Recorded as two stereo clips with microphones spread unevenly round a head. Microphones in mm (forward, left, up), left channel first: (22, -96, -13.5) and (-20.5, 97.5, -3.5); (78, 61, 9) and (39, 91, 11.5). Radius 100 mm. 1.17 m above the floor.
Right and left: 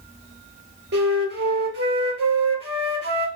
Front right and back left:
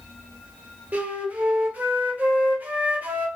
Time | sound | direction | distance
0.9 | a flute | 100° left | 1.1 m